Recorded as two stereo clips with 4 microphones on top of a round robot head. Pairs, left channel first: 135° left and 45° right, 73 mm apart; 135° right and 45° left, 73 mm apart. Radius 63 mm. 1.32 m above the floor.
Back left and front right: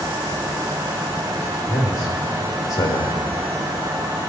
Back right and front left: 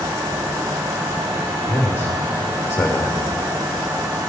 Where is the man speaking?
160° left, 2 m.